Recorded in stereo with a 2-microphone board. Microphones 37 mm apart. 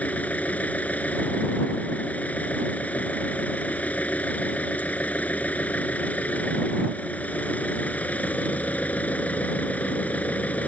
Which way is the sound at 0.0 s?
40° left (ahead or behind).